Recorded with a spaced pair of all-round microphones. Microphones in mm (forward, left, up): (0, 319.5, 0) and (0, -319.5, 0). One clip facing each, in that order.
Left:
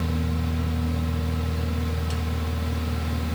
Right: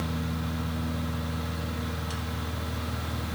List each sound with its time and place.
0.0 s a fan: 50° left (ahead or behind), 0.8 m